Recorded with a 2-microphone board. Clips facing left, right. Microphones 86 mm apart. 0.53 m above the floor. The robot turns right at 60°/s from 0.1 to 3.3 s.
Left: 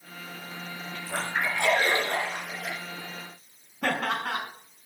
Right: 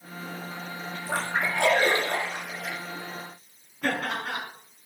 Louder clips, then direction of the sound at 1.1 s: Right 2 dB; 90° right.